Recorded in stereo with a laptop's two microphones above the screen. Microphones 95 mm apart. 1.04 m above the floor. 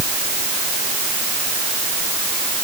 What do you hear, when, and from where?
Only background noise.